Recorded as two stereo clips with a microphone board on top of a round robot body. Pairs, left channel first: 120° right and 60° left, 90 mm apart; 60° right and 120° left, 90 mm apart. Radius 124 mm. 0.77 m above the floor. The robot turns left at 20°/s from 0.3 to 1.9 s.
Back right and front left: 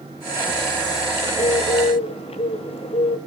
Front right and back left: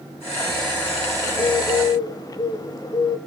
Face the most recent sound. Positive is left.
turn(degrees=-110)